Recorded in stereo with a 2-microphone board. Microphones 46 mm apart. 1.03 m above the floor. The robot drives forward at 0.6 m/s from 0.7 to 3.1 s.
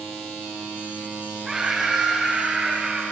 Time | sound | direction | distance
1.4 | a scream | 15° right (ahead or behind) | 6.5 m